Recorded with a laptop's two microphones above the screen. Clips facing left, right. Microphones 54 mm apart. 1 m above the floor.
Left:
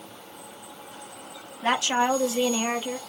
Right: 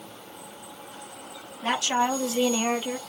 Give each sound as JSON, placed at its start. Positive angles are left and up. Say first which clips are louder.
{"t": 1.6, "sound": "a woman speaking", "louder": "left 2 dB", "side_deg": 35, "distance_m": 1.3}